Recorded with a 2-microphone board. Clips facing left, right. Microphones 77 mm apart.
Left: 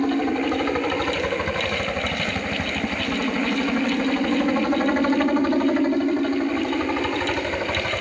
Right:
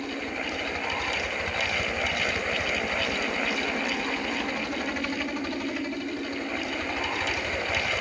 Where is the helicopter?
45° left (ahead or behind); by 8.0 s 35° left (ahead or behind).